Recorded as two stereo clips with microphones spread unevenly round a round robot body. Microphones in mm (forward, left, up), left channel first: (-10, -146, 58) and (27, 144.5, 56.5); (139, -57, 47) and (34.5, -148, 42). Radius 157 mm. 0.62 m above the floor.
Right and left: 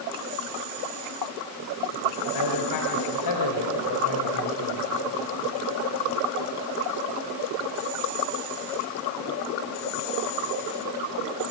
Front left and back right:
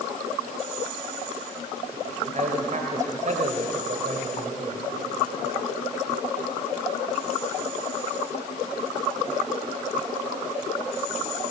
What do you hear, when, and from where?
2.3 s a man speaking: 110° right, 2.5 m